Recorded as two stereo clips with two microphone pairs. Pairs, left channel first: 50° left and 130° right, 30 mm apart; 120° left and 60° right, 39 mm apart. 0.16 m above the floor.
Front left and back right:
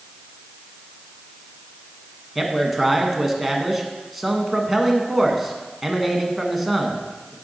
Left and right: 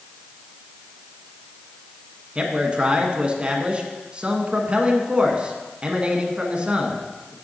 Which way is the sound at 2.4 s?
45° right.